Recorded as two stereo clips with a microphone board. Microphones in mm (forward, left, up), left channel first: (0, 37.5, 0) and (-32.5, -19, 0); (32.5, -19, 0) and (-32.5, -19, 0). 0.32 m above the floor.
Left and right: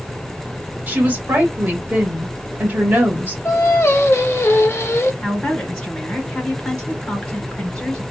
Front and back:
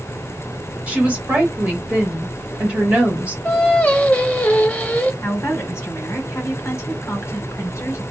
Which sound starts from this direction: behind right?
A woman speaking, at 0.9 s.